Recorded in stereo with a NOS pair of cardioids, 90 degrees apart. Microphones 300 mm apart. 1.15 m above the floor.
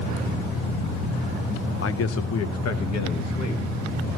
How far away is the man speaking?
About 0.9 m.